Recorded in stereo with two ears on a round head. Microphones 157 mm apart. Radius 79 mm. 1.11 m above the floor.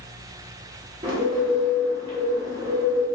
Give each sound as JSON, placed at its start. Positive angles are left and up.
{"t": 1.0, "sound": "a bird", "side_deg": -30, "distance_m": 0.9}